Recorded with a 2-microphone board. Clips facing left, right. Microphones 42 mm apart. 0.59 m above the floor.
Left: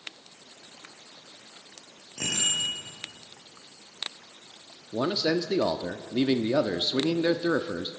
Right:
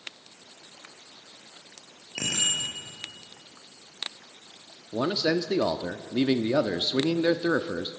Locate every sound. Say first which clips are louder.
2.1 s a bicycle bell: even; 75° right (ahead or behind), 9 m
4.9 s a man speaking: right 1 dB; 15° right (ahead or behind), 0.6 m